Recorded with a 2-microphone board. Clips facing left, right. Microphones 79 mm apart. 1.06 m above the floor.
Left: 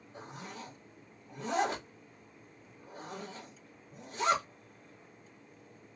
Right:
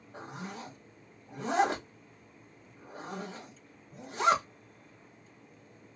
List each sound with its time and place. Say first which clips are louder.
0.1 s a zipper: right 4 dB; 65° right (ahead or behind), 1.3 m